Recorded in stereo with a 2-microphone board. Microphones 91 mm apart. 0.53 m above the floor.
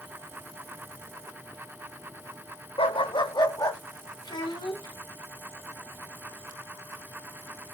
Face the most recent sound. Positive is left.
turn(degrees=60)  # may be behind; listen again after turning